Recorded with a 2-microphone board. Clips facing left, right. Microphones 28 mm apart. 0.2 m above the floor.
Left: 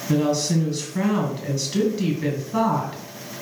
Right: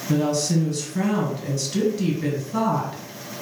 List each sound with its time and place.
0.1 s a woman speaking: 10° left (ahead or behind), 2.5 m